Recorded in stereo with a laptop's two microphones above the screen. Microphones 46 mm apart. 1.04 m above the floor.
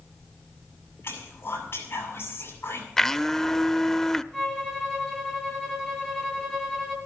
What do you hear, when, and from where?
1.0 s whispering: 55° left (ahead or behind), 7 m
3.0 s a blender: 10° left (ahead or behind), 0.6 m
4.3 s a violin: centre (ahead or behind), 2.5 m